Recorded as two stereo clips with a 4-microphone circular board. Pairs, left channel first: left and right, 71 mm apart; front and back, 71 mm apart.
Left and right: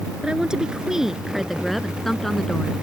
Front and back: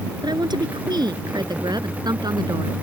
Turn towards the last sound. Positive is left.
turn(degrees=170)